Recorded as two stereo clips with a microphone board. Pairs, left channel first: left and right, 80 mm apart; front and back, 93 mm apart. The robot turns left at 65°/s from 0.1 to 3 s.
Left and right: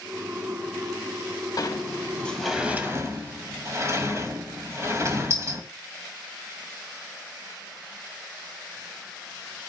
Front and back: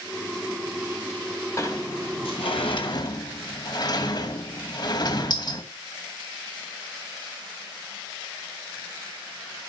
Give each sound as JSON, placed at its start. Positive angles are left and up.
{"t": 1.6, "sound": "a sliding door", "azimuth_deg": 55, "distance_m": 2.5}